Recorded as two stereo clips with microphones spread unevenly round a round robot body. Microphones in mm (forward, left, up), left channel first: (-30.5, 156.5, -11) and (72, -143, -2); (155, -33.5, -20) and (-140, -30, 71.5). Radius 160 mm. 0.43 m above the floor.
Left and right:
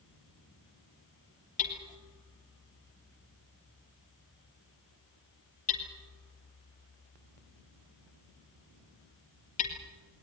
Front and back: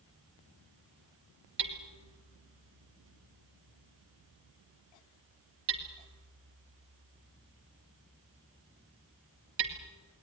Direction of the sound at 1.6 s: 175° left.